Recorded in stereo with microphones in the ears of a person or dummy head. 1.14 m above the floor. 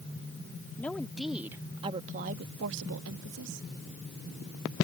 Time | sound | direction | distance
0.8 | a woman speaking | 5° left (ahead or behind) | ?